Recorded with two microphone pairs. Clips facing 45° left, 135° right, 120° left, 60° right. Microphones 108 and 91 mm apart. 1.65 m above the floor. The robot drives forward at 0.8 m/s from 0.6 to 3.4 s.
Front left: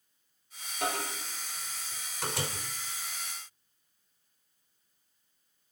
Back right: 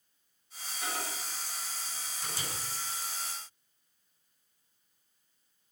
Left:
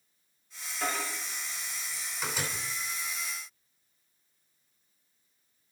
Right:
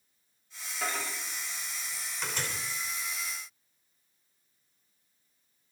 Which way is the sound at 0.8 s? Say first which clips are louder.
Front left 5 dB, left 2 dB; 30° left.